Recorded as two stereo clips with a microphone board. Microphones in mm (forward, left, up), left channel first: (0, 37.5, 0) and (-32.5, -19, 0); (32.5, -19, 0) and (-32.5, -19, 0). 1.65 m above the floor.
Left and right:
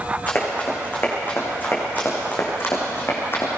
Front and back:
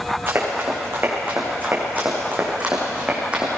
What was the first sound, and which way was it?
Running footsteps, 125° left.